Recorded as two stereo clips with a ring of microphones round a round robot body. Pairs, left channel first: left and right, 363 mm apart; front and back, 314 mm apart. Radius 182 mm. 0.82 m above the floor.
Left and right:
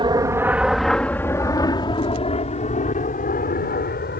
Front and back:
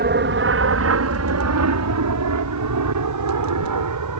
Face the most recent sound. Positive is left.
turn(degrees=155)